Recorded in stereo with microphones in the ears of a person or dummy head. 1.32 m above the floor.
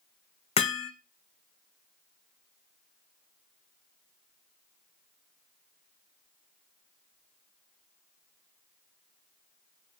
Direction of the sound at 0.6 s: 40° left (ahead or behind).